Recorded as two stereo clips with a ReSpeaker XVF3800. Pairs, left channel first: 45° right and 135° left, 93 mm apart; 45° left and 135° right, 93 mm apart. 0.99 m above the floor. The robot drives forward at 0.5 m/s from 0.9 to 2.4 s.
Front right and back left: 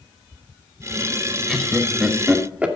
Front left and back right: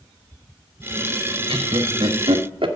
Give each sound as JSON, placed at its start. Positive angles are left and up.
{"t": 1.5, "sound": "laughter", "azimuth_deg": -140, "distance_m": 1.1}